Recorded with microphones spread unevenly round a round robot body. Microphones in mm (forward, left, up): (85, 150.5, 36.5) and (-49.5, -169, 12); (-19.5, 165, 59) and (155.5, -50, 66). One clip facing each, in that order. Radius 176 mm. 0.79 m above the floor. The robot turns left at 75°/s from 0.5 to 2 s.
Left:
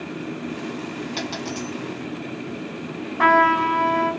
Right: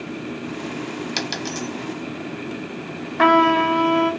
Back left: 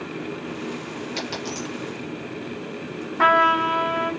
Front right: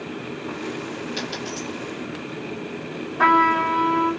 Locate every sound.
1.2 s a dropped coin: 145° right, 1.1 m; by 1.7 s 175° left, 1.1 m
3.2 s a trumpet: 155° right, 1.2 m